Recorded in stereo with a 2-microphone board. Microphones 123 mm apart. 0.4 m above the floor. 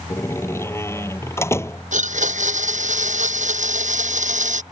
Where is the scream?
I don't hear a scream.